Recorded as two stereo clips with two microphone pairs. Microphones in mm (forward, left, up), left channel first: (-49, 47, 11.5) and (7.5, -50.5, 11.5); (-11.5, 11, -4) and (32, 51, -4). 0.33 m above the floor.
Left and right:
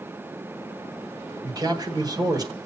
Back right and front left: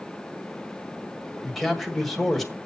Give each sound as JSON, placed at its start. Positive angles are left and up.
{"t": 1.4, "sound": "a man speaking", "azimuth_deg": -50, "distance_m": 1.6}